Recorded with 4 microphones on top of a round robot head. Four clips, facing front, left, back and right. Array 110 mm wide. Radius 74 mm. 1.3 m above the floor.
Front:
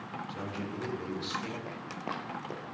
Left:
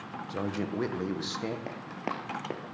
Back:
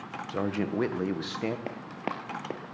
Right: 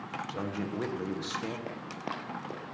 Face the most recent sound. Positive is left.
turn(degrees=130)